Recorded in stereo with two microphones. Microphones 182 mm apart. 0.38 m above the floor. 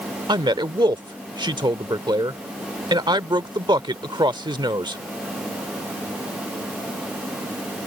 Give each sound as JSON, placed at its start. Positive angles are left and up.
{"t": 0.3, "sound": "a man speaking", "side_deg": -25}